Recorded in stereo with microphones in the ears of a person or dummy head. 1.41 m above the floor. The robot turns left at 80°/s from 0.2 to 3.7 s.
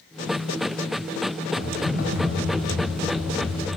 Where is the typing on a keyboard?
145° left, 1.9 m; by 3.8 s 25° right, 1.9 m.